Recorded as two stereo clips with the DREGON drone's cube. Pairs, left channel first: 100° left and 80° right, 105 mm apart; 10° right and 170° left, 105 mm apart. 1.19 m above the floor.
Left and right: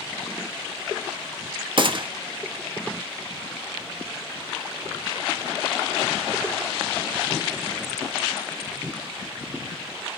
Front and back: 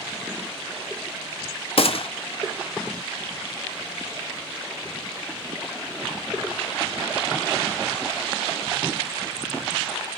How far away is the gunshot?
About 0.5 m.